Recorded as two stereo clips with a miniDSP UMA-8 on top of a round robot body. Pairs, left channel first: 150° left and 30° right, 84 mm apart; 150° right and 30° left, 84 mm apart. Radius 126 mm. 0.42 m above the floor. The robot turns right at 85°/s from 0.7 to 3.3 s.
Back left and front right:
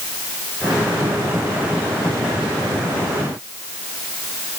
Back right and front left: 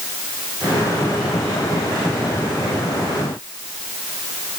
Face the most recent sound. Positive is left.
No sound to turn to.